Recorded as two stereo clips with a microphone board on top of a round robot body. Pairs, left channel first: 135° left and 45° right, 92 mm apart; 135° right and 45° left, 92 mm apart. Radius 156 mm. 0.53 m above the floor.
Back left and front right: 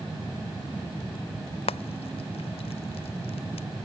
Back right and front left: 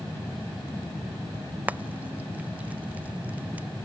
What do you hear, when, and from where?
1.7 s frying: 120° left